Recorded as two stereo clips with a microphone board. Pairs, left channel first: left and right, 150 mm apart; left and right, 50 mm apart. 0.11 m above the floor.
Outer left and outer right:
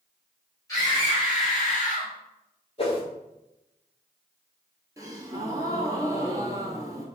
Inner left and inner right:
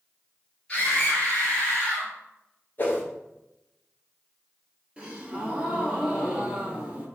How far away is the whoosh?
About 1.0 m.